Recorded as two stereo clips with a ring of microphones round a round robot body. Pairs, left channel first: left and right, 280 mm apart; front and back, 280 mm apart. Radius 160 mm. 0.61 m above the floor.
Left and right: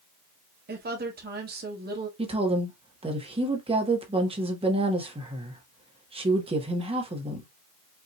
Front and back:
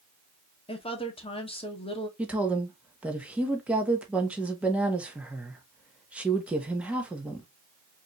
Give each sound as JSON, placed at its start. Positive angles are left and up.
{"t": 0.7, "sound": "a woman speaking", "azimuth_deg": -60, "distance_m": 1.3}
{"t": 2.2, "sound": "a woman speaking", "azimuth_deg": -105, "distance_m": 1.2}